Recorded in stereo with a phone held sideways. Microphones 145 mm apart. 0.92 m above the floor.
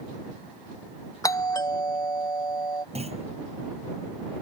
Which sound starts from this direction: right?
A clunk, at 3.0 s.